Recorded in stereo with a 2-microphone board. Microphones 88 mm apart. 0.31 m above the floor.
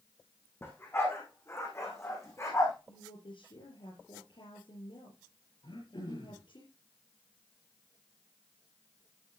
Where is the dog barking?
30° left (ahead or behind), 5 m; by 2.7 s 35° left (ahead or behind), 7 m.